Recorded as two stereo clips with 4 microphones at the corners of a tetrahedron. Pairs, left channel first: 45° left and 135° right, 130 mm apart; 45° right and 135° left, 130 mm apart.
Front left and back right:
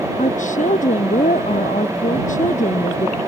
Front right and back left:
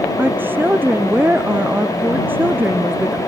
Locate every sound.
0.2 s a woman speaking: 60° left